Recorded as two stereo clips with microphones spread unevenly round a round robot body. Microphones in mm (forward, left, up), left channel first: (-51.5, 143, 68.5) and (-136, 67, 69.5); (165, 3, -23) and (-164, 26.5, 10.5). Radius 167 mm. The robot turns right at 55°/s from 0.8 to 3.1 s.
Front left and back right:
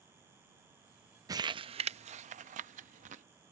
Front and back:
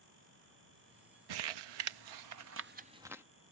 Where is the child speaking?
I don't hear a child speaking.